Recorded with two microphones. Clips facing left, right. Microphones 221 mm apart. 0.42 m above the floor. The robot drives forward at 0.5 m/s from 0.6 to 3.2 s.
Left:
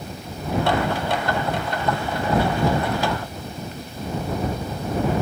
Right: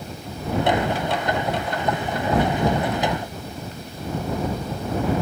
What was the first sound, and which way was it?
Only background noise.